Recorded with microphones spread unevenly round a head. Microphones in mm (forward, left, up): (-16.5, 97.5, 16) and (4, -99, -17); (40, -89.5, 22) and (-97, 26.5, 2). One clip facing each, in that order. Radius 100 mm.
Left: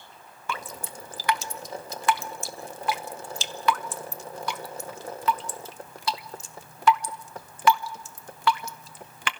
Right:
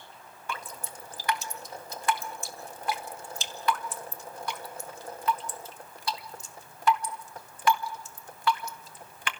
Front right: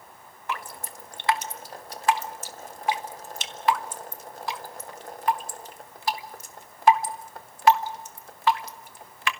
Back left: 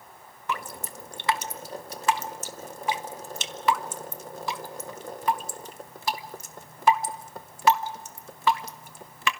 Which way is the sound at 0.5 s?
115° left.